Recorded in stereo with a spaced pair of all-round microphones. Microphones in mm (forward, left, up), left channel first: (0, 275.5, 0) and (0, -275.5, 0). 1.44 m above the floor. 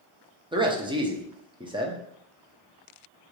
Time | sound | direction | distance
0.5 | a man speaking | 10° right (ahead or behind) | 0.6 m